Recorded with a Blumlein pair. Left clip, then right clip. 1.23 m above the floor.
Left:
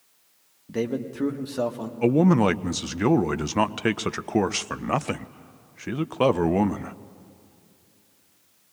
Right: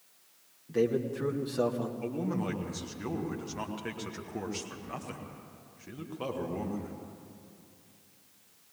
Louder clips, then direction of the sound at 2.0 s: Left 20 dB; 55° left.